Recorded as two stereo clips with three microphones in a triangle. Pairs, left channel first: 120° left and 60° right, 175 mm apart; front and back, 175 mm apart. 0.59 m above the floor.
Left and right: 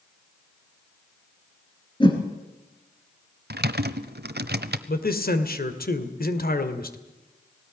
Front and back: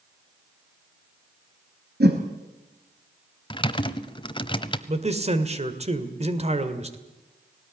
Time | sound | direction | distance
2.0 | a whoosh | straight behind | 3 m
3.5 | typing on a keyboard | 60° right | 1.0 m
4.9 | a man speaking | 135° left | 2.0 m